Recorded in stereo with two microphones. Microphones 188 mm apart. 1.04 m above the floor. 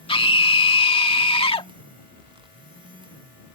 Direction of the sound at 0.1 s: 30° left (ahead or behind).